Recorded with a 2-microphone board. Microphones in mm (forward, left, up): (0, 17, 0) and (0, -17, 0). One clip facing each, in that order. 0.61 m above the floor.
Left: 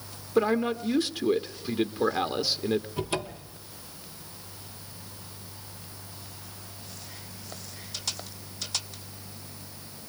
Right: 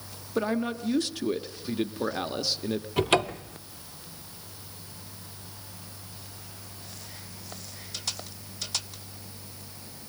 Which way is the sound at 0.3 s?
10° left (ahead or behind).